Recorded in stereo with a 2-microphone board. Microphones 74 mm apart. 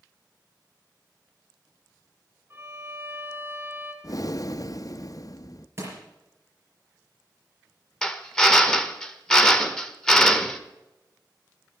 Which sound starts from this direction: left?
Breathing, at 4.0 s.